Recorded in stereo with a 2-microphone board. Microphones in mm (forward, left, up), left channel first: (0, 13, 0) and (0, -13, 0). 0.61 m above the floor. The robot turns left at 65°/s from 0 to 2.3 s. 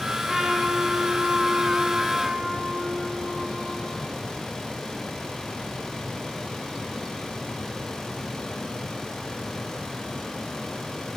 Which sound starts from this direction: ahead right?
A trumpet, at 0.3 s.